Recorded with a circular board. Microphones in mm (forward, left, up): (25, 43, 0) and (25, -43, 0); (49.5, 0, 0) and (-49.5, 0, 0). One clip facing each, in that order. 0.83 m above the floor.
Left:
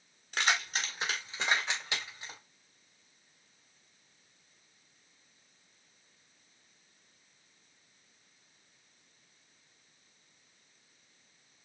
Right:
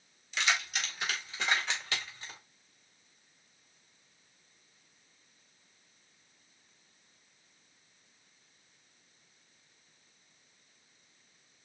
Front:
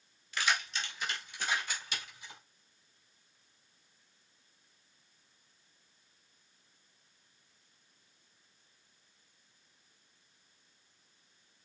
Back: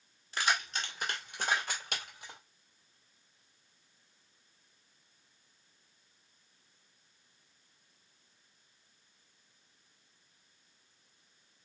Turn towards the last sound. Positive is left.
turn(degrees=165)